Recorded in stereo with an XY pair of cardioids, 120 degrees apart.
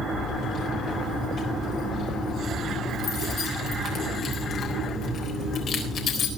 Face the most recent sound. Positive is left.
turn(degrees=50)